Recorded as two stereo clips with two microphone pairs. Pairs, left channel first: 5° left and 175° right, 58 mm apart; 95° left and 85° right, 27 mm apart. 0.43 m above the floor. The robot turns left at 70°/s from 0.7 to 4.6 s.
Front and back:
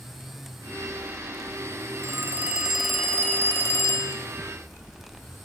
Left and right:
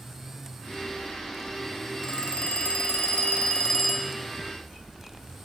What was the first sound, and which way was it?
A phone ringing, 150° left.